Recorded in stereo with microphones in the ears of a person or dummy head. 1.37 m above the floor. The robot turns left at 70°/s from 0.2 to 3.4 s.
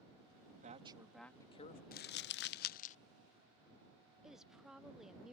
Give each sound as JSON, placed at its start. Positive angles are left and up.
{"t": 0.5, "sound": "a woman speaking", "azimuth_deg": -135}
{"t": 1.9, "sound": "crumpling", "side_deg": 40}
{"t": 4.2, "sound": "a woman speaking", "side_deg": -5}